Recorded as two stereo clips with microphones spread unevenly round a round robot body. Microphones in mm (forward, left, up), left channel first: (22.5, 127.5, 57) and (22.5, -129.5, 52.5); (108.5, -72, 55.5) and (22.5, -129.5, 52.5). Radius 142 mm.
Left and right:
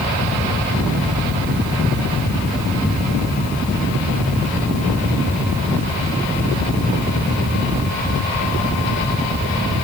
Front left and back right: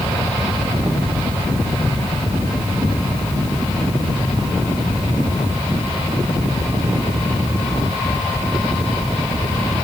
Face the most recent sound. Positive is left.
No sound to turn to.